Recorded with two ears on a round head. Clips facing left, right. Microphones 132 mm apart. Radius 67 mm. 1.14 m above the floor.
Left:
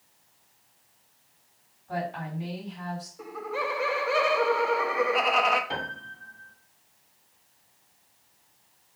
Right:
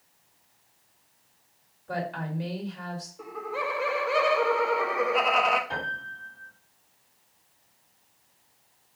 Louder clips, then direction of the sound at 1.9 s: Even; 80° right.